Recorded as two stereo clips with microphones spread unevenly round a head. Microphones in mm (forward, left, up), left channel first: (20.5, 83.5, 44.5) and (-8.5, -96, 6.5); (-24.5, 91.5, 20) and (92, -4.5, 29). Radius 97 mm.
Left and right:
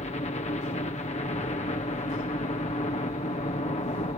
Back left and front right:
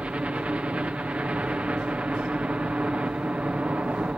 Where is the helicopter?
40° left.